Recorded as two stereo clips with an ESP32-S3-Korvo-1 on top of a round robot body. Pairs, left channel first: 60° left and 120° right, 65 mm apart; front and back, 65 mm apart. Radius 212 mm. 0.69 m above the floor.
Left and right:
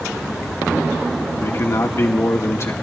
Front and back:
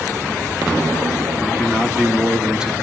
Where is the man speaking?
105° left, 2 m.